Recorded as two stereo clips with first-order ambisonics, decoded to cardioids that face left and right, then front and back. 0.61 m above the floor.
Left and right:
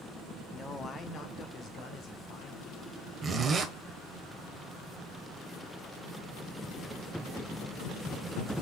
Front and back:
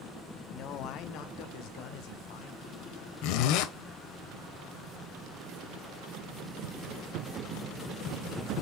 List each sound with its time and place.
0.5 s a man speaking: 10° left, 0.8 m; by 3.1 s 35° left, 4 m
3.2 s a zipper: 15° right, 1.2 m